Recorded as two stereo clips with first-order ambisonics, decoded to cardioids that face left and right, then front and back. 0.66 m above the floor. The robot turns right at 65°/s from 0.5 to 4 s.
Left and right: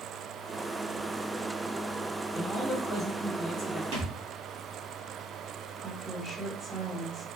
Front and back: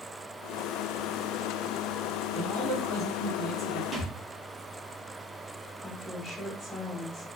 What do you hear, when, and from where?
2.3 s a man speaking: 145° left, 1.5 m; by 3.8 s 115° right, 1.5 m
3.9 s a thud: 100° right, 1.2 m; by 4.1 s 95° right, 1.2 m
5.8 s a woman speaking: 10° right, 0.9 m